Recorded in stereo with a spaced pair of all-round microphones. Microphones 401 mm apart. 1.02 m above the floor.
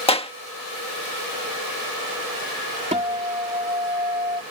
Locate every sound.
0.1 s a clap: 15° left (ahead or behind)
2.9 s a guitar: 15° right (ahead or behind)